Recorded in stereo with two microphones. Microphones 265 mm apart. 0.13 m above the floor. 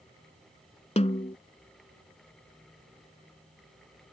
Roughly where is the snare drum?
Left.